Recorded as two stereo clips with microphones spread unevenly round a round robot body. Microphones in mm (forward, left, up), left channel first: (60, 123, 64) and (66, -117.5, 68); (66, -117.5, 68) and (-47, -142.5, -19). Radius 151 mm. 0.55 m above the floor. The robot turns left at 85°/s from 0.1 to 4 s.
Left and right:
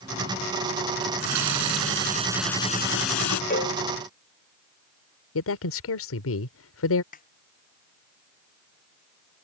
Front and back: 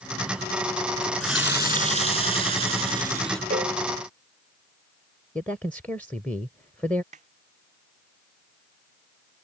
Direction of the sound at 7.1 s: 155° left.